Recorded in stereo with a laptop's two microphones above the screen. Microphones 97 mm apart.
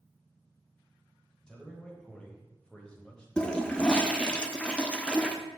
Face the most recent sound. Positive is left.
turn(degrees=10)  # may be behind; listen again after turning